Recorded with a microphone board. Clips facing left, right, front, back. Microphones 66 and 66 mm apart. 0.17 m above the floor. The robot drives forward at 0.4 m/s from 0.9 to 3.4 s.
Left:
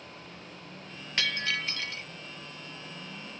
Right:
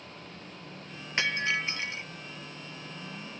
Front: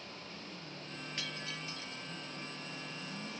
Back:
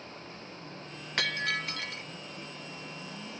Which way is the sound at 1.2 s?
155° right.